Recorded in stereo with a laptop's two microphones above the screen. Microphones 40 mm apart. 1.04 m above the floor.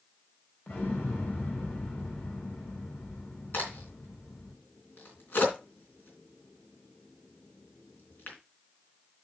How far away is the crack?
About 3 m.